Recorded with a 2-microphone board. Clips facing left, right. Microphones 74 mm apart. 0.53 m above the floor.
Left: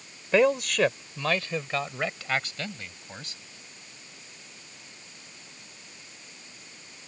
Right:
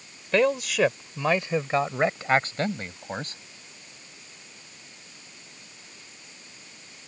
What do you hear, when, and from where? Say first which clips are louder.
0.3 s a man speaking: left 1 dB; 5° left (ahead or behind); by 3.4 s 45° right (ahead or behind)